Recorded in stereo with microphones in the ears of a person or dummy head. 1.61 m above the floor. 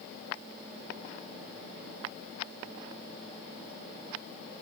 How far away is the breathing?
I don't hear breathing.